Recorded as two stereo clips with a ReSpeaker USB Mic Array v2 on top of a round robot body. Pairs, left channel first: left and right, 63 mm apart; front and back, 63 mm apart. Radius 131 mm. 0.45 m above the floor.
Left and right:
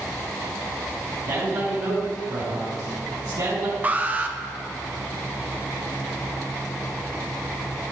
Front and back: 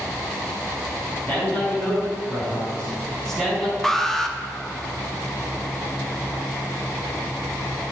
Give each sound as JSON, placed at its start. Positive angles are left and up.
{"t": 1.3, "sound": "a man speaking", "azimuth_deg": -60, "distance_m": 5.5}
{"t": 3.8, "sound": "an alarm", "azimuth_deg": -75, "distance_m": 1.6}